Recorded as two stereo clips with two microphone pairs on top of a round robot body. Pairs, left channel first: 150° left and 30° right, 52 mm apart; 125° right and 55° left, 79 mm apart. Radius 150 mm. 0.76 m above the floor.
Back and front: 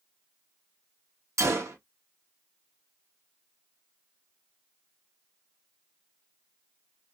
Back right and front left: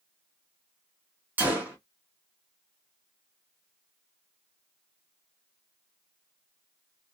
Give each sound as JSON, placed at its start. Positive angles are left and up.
{"t": 1.4, "sound": "a gunshot", "azimuth_deg": -15, "distance_m": 1.1}